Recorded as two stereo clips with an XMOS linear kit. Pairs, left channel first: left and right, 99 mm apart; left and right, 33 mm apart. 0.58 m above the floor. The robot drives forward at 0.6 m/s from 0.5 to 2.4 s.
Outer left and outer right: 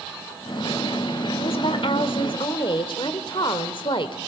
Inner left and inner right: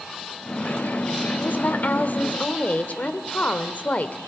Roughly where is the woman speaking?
Left.